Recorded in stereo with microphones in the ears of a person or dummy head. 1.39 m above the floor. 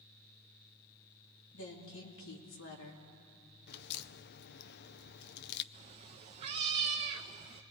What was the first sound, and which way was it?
A woman speaking, 65° left (ahead or behind).